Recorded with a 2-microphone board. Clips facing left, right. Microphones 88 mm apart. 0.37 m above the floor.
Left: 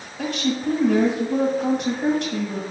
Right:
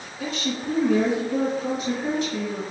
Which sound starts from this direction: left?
A woman speaking, at 0.2 s.